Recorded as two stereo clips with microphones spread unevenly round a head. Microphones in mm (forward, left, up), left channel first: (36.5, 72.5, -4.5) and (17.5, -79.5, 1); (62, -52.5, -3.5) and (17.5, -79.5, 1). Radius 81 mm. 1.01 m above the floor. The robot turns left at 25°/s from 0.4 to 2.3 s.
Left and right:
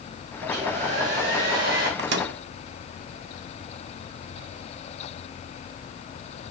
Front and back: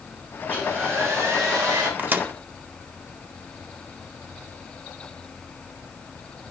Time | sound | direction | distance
0.4 | a hair dryer | 90° right | 4.5 m
2.0 | a microwave | 90° right | 0.8 m